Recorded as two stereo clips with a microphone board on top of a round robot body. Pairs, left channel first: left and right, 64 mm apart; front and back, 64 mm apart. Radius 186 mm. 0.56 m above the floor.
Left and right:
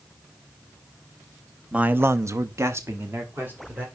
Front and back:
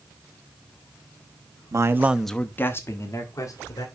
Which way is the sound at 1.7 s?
155° right.